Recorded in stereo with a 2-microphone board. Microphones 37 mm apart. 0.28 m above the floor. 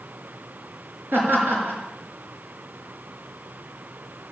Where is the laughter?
70° right (ahead or behind), 5 m.